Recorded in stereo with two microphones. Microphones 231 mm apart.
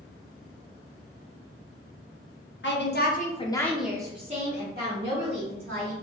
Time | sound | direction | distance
2.6 | a woman speaking | 55° left (ahead or behind) | 0.8 m